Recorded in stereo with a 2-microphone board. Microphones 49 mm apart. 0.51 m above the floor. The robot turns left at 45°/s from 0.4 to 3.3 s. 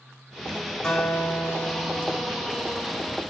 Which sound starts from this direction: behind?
A guitar, at 0.8 s.